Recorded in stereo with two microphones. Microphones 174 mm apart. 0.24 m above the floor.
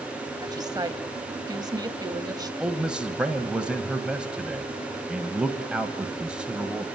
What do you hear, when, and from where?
0.4 s a woman speaking: 25° right (ahead or behind), 1.3 m
2.6 s a man speaking: 5° right (ahead or behind), 1.5 m